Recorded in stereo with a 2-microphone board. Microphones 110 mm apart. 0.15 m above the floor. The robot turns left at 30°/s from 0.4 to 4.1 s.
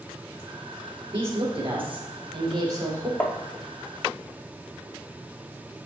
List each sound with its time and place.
1.1 s a woman speaking: 90° right, 2.5 m; by 3.1 s 150° right, 2.5 m
3.2 s tapping: 10° left (ahead or behind), 0.7 m; by 3.4 s 15° left (ahead or behind), 0.7 m